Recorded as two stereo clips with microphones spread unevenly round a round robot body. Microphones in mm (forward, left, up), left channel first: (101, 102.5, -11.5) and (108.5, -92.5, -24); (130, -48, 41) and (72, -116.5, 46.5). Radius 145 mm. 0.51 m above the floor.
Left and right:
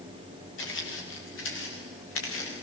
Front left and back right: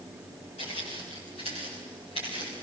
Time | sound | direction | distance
0.6 | footsteps | 80° left | 7 m